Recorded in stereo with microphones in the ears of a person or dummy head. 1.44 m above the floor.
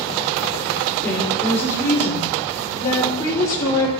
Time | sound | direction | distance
1.0 | a woman speaking | 15° left (ahead or behind) | 4 m